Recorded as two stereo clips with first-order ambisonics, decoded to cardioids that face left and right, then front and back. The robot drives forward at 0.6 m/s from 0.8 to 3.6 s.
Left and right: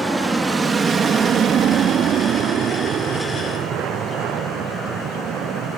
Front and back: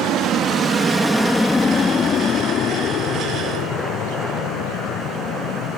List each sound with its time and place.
0.0 s an aircraft: 175° right; by 5.8 s 30° right